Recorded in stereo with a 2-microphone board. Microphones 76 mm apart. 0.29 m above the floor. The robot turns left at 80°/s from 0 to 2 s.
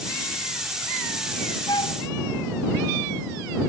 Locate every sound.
1.7 s a flute: 70° left (ahead or behind); by 2.0 s 75° left (ahead or behind)